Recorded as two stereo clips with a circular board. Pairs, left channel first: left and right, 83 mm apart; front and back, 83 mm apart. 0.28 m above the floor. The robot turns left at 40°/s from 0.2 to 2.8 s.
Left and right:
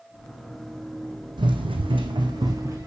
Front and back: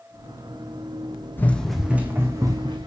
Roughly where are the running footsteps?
Ahead right.